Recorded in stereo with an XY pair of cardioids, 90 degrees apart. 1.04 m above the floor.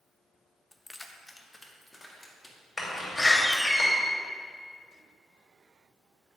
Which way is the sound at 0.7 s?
15° left.